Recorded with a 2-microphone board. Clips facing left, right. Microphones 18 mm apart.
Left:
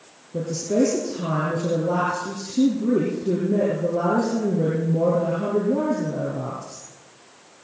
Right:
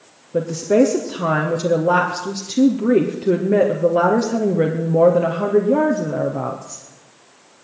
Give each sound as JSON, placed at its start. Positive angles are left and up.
{"t": 0.3, "sound": "a woman speaking", "side_deg": -55, "distance_m": 2.5}